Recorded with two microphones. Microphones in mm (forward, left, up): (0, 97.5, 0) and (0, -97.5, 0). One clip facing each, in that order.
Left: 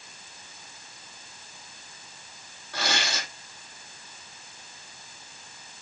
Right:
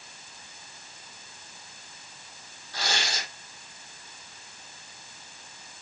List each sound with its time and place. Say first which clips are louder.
2.7 s tearing paper: left 2 dB; 60° left (ahead or behind), 4 m